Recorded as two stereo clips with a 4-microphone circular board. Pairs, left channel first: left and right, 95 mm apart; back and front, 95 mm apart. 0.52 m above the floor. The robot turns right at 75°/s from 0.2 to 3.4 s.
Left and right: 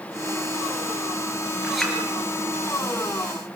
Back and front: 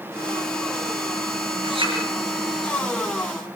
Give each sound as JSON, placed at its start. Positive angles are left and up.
{"t": 1.6, "sound": "a clink", "azimuth_deg": -10, "distance_m": 6.5}